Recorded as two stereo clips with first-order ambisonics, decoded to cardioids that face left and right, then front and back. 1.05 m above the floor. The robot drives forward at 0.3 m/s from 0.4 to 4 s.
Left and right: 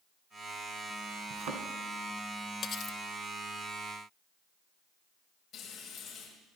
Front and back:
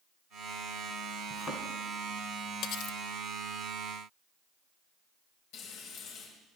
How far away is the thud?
About 2.5 m.